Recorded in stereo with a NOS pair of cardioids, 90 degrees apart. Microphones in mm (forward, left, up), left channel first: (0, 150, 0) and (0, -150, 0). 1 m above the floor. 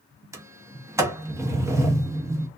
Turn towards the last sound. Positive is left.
turn(degrees=-10)